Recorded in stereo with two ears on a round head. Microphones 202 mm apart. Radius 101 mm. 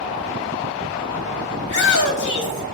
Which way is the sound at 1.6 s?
60° left (ahead or behind).